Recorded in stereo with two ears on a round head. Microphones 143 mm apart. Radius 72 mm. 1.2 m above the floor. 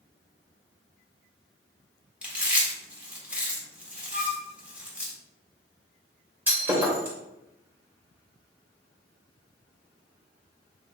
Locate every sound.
2.2 s chewing: 10° right (ahead or behind), 1.6 m
4.1 s a flute: centre (ahead or behind), 3.5 m
6.5 s breaking glass: 10° right (ahead or behind), 2.5 m